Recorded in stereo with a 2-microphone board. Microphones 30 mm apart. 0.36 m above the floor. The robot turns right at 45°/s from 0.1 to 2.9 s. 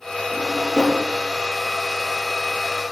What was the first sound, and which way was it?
A drawer, 15° right (ahead or behind).